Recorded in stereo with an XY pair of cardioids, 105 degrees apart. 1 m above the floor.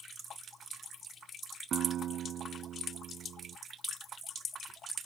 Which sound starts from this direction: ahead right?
A guitar, at 1.7 s.